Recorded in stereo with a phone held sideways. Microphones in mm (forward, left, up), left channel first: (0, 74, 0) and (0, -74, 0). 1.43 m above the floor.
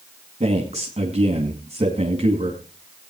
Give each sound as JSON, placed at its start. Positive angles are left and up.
{"t": 0.4, "sound": "a man speaking", "side_deg": -45, "distance_m": 2.5}